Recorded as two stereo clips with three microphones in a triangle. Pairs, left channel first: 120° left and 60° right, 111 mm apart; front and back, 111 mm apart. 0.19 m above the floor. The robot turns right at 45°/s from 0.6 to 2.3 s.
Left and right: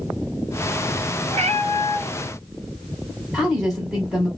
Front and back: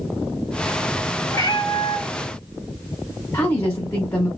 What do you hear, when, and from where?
1.3 s a cat meowing: 60° right, 0.9 m; by 2.2 s 25° right, 0.9 m
3.3 s a woman speaking: 20° left, 1.2 m